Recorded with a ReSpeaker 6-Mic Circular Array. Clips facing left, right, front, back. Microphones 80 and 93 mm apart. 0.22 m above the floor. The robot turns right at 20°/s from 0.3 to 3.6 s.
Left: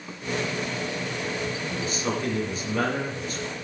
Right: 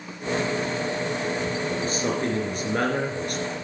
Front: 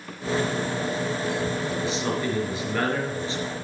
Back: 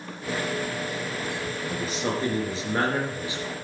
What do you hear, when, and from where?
1.7 s a man speaking: 140° right, 3.5 m; by 3.5 s 100° right, 3.5 m